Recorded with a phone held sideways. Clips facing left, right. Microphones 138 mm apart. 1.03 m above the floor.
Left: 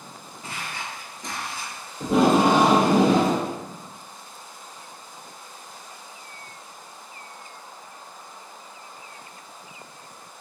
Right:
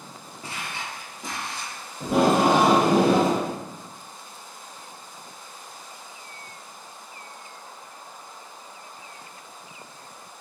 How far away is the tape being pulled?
About 1.6 m.